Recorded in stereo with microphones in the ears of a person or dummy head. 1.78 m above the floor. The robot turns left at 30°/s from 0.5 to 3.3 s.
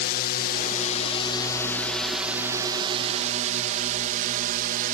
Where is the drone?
50° left (ahead or behind); by 4.9 s 45° right (ahead or behind).